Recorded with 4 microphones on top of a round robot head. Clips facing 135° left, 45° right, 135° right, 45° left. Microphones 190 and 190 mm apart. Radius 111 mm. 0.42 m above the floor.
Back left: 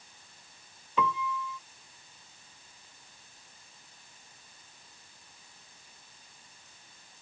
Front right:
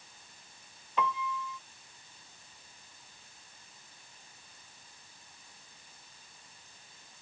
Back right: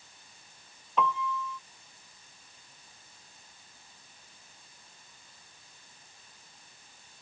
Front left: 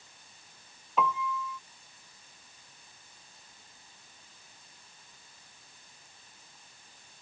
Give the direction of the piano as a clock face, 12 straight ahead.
8 o'clock.